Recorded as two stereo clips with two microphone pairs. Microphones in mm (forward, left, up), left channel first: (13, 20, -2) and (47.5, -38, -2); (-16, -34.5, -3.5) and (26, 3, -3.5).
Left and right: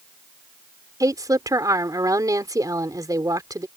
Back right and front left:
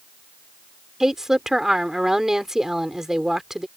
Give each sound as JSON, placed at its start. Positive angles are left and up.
{"t": 1.0, "sound": "a woman speaking", "azimuth_deg": -40}